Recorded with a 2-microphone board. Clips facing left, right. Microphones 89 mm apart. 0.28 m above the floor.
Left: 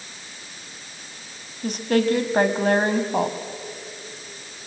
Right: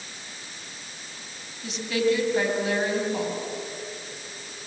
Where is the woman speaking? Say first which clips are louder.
Left 4 dB; 50° left (ahead or behind), 1.9 m.